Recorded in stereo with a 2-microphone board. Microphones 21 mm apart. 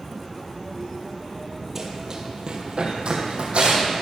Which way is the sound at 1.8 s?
15° right (ahead or behind).